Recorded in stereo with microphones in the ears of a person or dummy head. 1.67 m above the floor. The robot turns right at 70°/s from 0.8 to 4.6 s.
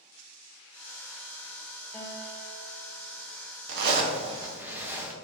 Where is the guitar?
15° left, 0.8 m; by 3.3 s 105° left, 0.8 m.